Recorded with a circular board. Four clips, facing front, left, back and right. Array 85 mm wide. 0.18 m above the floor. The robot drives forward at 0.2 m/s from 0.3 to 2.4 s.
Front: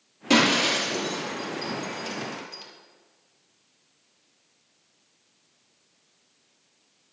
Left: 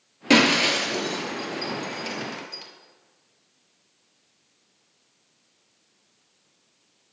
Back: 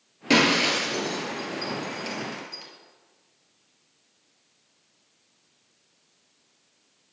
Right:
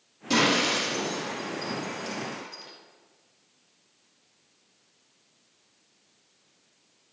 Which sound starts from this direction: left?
Breaking glass, at 0.3 s.